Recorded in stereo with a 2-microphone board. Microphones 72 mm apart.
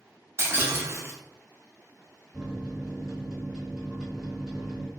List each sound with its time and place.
0.4 s breaking glass: 35° right (ahead or behind), 0.5 m
2.3 s a microwave: centre (ahead or behind), 1.8 m